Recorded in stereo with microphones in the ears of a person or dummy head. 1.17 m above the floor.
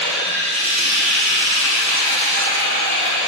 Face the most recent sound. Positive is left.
turn(degrees=-60)  # may be behind; listen again after turning